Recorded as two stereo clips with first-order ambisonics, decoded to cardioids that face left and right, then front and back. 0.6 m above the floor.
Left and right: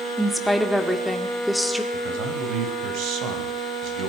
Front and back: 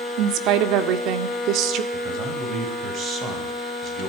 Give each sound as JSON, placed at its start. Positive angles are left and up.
{"t": 0.2, "sound": "a woman speaking", "azimuth_deg": 180, "distance_m": 1.6}
{"t": 1.9, "sound": "a man speaking", "azimuth_deg": -125, "distance_m": 3.5}